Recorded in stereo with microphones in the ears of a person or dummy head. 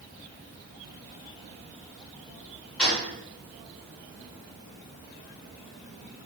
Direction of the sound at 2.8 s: 5° left (ahead or behind).